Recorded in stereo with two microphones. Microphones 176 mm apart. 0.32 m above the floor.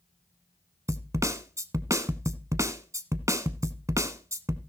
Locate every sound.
0.9 s a snare drum: 15° right (ahead or behind), 0.9 m